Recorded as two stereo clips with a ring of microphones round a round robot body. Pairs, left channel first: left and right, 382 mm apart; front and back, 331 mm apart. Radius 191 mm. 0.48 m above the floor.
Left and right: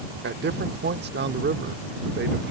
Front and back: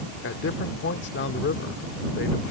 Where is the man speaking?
40° right.